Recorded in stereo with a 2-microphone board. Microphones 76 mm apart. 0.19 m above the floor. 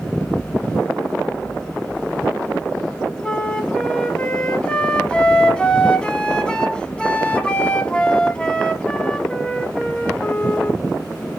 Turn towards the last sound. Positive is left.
turn(degrees=10)  # may be behind; listen again after turning